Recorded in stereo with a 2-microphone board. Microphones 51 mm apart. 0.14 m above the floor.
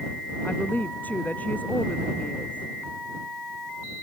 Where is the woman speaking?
35° left (ahead or behind); by 2.7 s 25° left (ahead or behind).